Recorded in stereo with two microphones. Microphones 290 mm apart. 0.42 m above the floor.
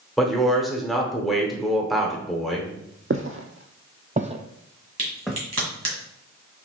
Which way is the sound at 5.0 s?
60° right (ahead or behind).